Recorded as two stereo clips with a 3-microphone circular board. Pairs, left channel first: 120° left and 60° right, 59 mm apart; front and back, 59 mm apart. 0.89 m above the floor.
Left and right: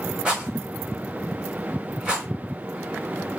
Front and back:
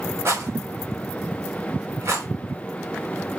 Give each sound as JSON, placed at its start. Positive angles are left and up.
{"t": 0.2, "sound": "a rattle", "azimuth_deg": -135, "distance_m": 4.5}